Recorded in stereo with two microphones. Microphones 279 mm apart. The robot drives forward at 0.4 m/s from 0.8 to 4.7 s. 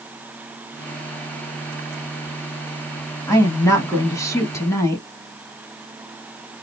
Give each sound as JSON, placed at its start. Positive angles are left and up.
{"t": 3.3, "sound": "a woman speaking", "side_deg": 10, "distance_m": 1.0}